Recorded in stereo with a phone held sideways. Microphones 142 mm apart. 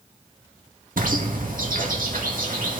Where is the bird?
90° right, 2 m.